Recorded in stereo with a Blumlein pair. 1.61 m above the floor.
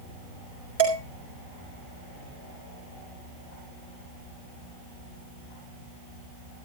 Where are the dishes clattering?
65° right, 4.5 m.